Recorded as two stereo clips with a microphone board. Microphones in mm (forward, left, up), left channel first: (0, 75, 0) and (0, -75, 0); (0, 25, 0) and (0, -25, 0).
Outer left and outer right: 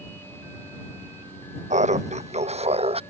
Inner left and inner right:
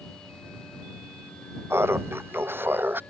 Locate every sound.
1.7 s laughter: 55° right (ahead or behind); by 3.0 s 45° right (ahead or behind)